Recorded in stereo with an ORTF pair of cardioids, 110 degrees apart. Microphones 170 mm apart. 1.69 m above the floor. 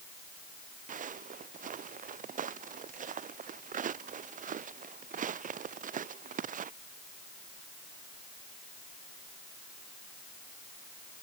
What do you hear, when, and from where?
0.9 s footsteps: 50° right